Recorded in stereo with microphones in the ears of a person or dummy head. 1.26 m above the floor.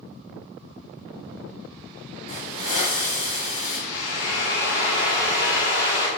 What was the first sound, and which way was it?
A hiss, 30° left (ahead or behind).